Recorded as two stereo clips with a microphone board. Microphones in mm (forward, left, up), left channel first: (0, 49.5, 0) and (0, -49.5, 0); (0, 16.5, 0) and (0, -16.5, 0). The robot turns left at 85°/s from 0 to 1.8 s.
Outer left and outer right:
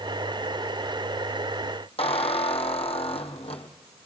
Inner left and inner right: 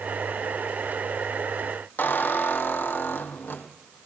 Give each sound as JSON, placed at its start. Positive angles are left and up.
{"t": 2.0, "sound": "a squeak", "side_deg": 85, "distance_m": 2.0}